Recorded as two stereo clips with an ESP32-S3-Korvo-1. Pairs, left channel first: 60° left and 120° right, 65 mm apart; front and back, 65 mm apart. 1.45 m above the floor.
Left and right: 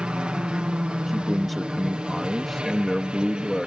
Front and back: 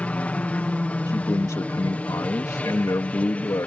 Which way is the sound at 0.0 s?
55° right.